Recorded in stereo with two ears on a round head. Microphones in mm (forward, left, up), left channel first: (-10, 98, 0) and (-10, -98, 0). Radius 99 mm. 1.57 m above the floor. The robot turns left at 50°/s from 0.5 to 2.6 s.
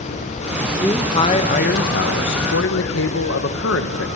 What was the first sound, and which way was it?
A man speaking, 170° left.